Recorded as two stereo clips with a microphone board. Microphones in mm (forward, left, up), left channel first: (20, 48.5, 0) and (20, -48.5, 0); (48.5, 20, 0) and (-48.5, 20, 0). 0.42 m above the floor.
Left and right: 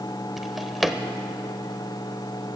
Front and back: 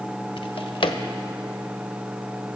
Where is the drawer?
5° right, 0.7 m.